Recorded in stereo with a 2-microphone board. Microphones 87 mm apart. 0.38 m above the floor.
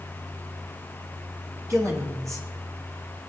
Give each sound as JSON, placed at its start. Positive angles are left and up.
{"t": 1.7, "sound": "a woman speaking", "side_deg": -40, "distance_m": 5.5}